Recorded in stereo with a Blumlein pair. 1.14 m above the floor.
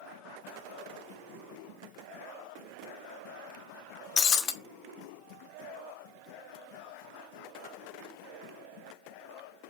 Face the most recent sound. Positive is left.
turn(degrees=25)